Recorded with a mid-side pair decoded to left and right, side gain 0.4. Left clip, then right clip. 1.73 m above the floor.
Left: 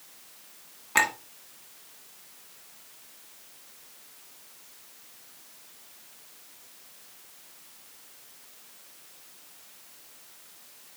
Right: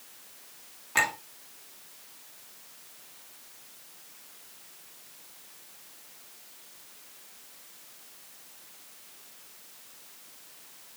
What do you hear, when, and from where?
0.9 s a clink: 35° left, 2 m